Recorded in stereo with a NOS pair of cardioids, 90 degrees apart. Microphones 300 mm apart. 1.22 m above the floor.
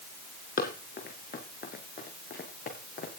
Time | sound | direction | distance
0.6 | running footsteps | 30° left | 5 m